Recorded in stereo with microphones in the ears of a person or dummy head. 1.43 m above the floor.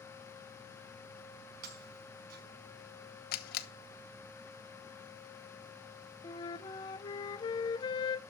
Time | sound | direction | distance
1.6 | breaking glass | 60° right (ahead or behind) | 5 m
3.3 | a camera shutter | 50° left (ahead or behind) | 1.1 m
6.2 | a flute | 15° left (ahead or behind) | 0.8 m